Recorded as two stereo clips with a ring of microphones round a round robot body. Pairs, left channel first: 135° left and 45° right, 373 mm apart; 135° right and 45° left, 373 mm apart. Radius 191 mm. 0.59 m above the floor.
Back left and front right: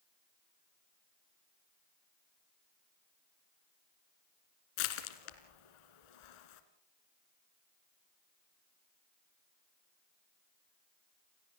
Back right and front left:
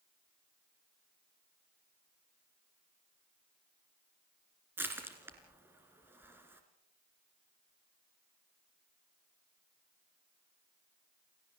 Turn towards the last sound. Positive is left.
turn(degrees=130)